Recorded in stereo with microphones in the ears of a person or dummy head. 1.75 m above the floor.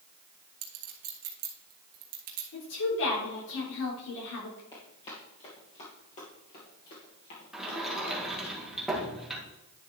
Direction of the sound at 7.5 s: Centre (ahead or behind).